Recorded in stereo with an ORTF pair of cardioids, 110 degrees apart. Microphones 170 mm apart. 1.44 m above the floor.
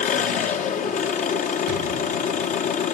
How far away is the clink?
No clink in this recording.